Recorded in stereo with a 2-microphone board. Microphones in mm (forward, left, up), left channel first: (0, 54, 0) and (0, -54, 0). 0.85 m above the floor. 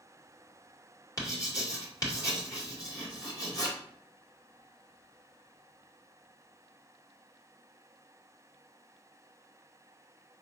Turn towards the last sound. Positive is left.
turn(degrees=35)  # may be behind; listen again after turning